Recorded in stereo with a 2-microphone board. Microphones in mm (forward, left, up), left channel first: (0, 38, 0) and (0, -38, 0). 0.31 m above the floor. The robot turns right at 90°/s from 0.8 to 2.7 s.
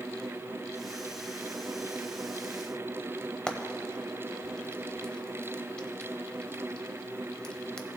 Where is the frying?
15° left (ahead or behind), 0.7 m.